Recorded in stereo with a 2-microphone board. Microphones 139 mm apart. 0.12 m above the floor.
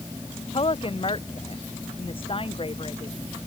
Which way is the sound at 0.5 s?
40° left (ahead or behind).